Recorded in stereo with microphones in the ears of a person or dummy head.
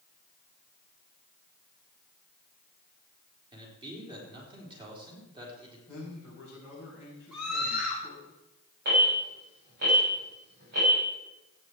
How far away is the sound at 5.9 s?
About 5.5 m.